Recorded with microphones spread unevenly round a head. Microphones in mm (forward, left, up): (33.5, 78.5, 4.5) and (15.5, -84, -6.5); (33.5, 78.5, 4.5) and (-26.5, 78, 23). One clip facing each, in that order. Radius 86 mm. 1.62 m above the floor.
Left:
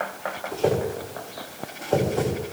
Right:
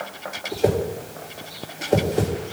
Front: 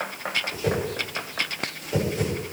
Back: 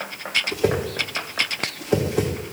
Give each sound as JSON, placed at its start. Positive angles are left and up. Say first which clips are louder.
{"t": 0.5, "sound": "a whoosh", "louder": "right 2 dB, back 6 dB", "azimuth_deg": -175, "distance_m": 2.5}